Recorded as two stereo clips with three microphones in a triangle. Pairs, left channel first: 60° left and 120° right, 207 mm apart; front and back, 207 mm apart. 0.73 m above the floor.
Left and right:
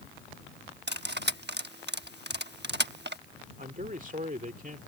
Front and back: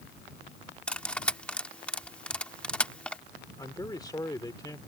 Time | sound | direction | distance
0.9 | cutlery clinking | 85° right | ?
3.6 | a man speaking | 70° right | ?